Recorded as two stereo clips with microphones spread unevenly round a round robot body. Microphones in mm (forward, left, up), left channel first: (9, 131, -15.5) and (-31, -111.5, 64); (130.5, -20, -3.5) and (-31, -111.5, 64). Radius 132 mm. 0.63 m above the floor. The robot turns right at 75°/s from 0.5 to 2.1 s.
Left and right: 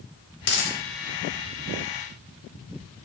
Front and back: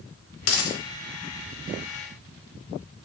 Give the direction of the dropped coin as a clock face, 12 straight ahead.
11 o'clock.